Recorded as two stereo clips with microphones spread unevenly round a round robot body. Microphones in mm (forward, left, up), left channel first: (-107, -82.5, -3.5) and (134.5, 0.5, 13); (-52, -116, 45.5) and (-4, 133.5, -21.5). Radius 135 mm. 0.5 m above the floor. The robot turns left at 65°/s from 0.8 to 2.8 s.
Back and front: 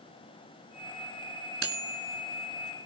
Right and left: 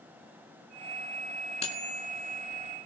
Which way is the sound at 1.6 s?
30° right.